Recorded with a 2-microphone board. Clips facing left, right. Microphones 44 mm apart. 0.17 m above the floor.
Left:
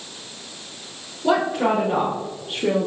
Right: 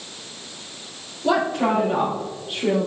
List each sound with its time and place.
1.2 s a woman speaking: 20° left (ahead or behind), 3.5 m; by 2.9 s 25° left (ahead or behind), 2.5 m